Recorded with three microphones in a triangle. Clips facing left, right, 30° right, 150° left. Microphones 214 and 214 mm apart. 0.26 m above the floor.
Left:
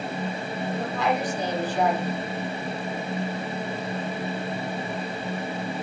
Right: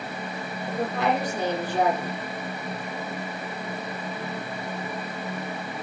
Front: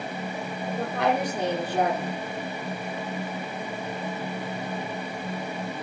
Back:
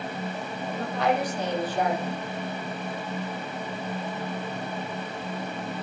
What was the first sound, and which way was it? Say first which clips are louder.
A woman speaking: right 2 dB, front 1 dB; 60° right.